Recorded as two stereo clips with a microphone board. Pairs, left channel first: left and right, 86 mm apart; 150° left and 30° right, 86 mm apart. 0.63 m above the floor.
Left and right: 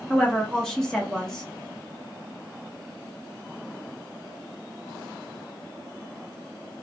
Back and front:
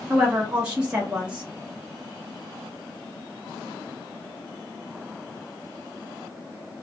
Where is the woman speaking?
20° left, 0.7 m.